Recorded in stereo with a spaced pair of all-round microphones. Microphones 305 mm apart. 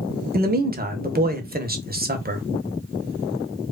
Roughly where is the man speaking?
Right.